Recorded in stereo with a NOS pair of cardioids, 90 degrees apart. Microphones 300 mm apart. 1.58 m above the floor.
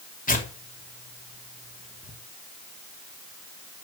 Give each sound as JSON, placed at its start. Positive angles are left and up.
{"t": 0.3, "sound": "tearing paper", "azimuth_deg": 25, "distance_m": 4.0}